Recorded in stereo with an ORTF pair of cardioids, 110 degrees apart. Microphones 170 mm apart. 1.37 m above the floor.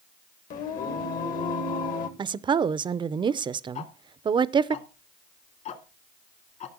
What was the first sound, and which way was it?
Singing, 60° left.